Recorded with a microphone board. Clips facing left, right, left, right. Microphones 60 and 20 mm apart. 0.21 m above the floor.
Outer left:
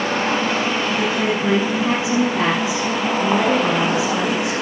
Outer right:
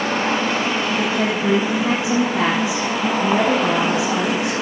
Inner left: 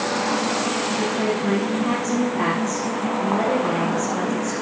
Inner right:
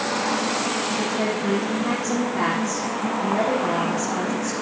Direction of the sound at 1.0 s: 25° right (ahead or behind).